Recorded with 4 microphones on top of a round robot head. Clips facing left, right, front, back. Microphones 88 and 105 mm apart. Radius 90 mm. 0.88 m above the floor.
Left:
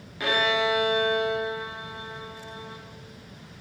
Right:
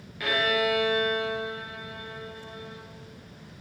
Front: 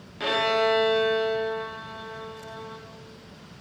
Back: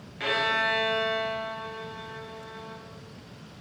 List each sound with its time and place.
0.2 s a violin: 45° left, 0.6 m